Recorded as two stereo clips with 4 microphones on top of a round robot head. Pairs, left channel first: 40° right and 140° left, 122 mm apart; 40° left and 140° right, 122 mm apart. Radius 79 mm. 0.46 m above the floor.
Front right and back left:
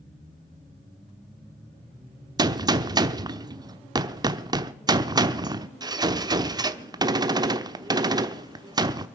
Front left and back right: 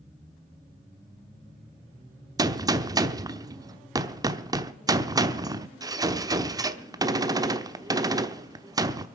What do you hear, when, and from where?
2.4 s a gunshot: 175° left, 0.9 m